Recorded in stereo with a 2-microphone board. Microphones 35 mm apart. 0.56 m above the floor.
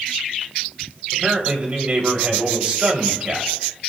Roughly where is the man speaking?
Right.